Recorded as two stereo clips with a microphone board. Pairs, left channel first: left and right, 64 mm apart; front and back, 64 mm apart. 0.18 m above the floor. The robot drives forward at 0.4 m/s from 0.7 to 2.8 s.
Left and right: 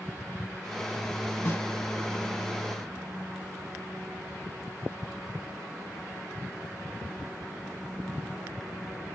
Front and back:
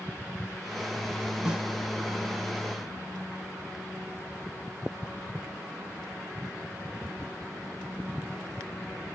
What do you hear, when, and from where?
1.4 s a snare drum: 110° left, 0.8 m; by 1.7 s 120° left, 0.9 m